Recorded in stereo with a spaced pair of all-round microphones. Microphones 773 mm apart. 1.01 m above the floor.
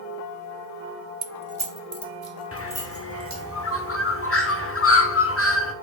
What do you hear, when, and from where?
1.2 s keys jangling: 55° right (ahead or behind), 0.6 m; by 3.4 s 20° right (ahead or behind), 2 m
2.5 s a bird: 20° left (ahead or behind), 0.7 m